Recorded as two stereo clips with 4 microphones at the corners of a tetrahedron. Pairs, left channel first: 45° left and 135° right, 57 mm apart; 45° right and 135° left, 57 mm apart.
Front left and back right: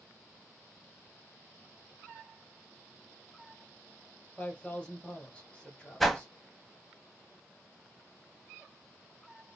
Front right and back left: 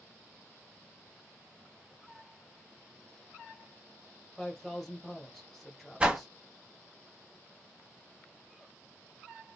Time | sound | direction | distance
4.4 | a man speaking | 30° left | 1.3 m
6.0 | a whoosh | 135° left | 0.6 m